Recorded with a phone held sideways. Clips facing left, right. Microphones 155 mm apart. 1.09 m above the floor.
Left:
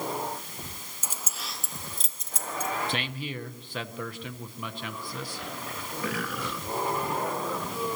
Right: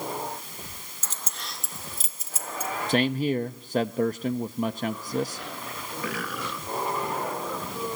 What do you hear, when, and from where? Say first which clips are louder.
1.0 s keys jangling: even; 15° left (ahead or behind), 0.7 m; by 2.7 s 10° right (ahead or behind), 2 m
2.9 s a man speaking: right 10 dB; 45° right (ahead or behind), 0.8 m